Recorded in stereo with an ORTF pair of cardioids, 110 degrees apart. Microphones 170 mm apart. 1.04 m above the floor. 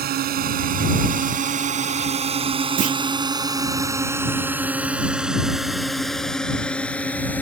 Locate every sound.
0.0 s a drone: 65° right; by 7.4 s 10° left
2.8 s a clunk: 55° right